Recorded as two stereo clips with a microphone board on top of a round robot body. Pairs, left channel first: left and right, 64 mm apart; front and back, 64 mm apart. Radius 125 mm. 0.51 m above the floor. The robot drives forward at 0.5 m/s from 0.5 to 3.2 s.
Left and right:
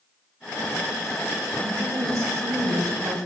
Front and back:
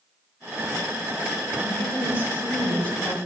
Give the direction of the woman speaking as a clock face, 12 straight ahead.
2 o'clock.